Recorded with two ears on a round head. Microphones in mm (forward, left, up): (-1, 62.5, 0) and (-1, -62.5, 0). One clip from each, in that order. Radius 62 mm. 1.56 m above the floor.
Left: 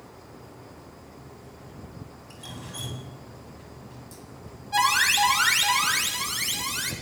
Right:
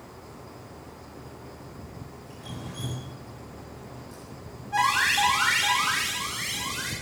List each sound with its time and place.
2.3 s dripping: 60° left (ahead or behind), 7.5 m
4.7 s an alarm: 80° left, 7.5 m